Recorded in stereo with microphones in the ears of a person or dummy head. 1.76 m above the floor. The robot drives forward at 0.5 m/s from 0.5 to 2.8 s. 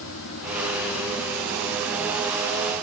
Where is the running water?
65° left (ahead or behind), 0.7 m; by 2.8 s 30° left (ahead or behind), 1.3 m.